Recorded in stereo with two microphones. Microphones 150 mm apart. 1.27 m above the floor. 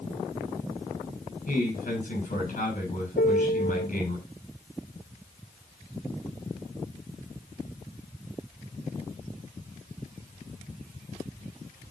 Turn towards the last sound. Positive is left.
turn(degrees=80)